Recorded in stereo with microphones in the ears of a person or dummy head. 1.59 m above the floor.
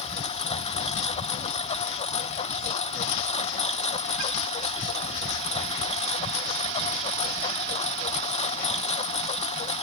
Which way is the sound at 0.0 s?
30° left (ahead or behind).